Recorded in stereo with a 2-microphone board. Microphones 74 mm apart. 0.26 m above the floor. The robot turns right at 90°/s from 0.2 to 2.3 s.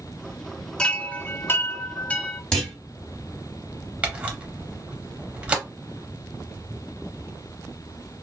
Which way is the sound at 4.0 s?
15° right (ahead or behind).